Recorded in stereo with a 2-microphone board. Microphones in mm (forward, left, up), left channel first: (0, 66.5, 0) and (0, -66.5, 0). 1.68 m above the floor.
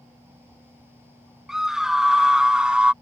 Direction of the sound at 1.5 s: 5° right (ahead or behind).